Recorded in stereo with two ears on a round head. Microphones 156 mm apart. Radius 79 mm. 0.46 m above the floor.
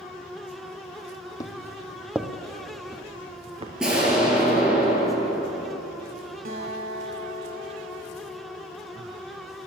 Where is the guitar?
55° right (ahead or behind), 1.6 m.